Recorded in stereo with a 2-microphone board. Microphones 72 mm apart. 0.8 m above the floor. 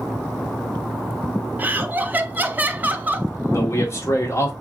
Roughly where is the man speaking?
Left.